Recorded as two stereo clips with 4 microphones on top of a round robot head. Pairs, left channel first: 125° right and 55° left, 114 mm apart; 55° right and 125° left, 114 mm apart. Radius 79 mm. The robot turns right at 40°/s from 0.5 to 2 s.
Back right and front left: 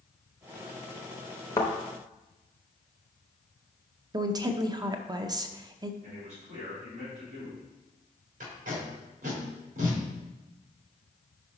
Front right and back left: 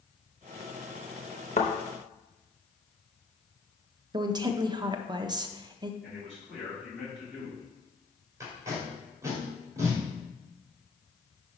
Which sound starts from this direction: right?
A thud, at 1.6 s.